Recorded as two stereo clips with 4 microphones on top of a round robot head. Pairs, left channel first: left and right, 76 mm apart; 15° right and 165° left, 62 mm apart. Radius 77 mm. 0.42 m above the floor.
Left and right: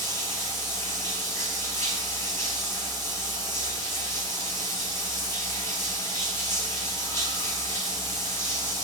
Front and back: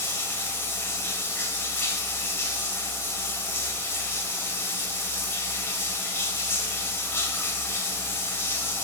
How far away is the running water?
About 2 m.